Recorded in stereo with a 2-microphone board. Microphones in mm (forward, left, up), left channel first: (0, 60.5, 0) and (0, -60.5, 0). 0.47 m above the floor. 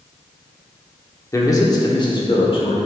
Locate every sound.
1.3 s a man speaking: 25° left (ahead or behind), 0.9 m; by 2.8 s 50° left (ahead or behind), 1.4 m